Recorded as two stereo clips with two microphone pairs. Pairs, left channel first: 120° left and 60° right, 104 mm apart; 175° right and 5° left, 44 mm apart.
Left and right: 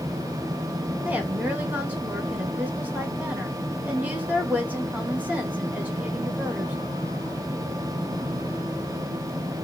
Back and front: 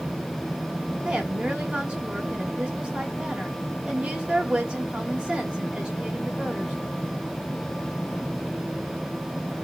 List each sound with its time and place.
1.1 s a woman speaking: 10° right, 1.1 m